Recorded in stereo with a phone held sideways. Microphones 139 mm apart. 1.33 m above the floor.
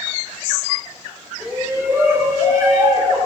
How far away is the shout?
About 4 m.